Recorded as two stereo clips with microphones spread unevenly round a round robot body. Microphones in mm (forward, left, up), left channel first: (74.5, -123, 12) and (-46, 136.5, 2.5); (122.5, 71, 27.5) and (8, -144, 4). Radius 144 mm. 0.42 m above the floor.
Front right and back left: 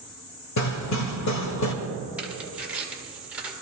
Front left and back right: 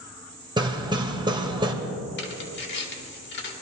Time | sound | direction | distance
0.6 | hammering | 50° right | 1.6 m
2.2 | tearing paper | 30° left | 1.9 m